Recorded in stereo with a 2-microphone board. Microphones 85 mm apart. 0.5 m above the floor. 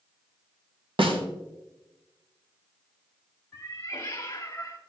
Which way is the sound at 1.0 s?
75° right (ahead or behind).